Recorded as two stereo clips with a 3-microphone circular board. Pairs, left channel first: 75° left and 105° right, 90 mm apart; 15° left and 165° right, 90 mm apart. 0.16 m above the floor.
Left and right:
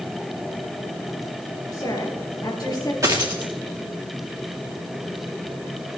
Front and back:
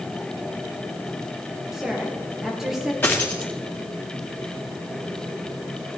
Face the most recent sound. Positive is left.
turn(degrees=-55)